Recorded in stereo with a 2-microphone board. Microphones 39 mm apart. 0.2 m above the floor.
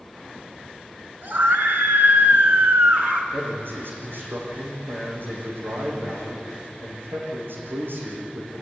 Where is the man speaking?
65° right (ahead or behind), 7.5 m.